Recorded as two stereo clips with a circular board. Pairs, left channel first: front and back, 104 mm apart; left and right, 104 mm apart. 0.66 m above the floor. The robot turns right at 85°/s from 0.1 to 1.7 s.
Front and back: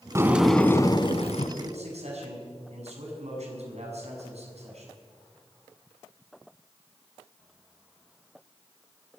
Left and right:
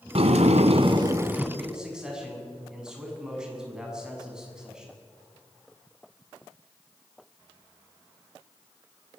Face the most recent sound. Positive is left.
turn(degrees=-175)